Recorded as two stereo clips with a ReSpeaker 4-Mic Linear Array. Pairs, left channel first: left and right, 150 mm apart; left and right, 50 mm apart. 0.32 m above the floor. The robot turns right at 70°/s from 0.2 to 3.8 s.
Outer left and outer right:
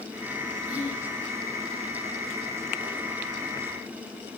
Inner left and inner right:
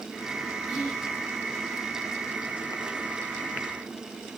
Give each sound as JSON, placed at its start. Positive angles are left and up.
{"t": 0.7, "sound": "whispering", "side_deg": -10, "distance_m": 1.1}